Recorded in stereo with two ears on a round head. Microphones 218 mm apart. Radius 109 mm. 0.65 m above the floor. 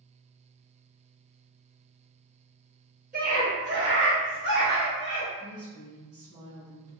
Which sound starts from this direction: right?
A scream, at 3.1 s.